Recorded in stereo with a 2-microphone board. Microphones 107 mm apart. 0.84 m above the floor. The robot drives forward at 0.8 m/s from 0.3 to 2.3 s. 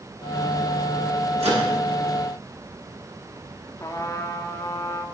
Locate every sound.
1.4 s a microwave: 85° right, 6 m
3.8 s a trumpet: 30° left (ahead or behind), 1.4 m